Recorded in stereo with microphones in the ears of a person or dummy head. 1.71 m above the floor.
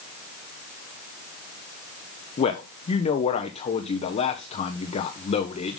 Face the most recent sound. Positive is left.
turn(degrees=35)  # may be behind; listen again after turning